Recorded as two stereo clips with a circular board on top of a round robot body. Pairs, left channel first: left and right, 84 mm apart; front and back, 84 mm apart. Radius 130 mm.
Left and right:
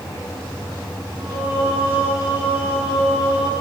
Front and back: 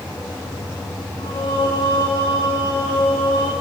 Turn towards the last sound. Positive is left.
turn(degrees=-15)